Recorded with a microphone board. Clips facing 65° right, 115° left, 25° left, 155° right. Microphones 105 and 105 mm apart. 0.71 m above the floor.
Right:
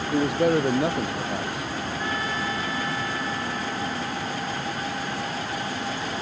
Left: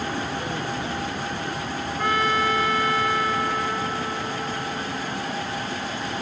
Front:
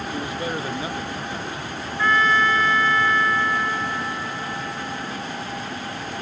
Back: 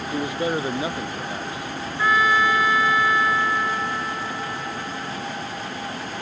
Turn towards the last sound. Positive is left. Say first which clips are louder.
# left 9 dB, even
turn(degrees=125)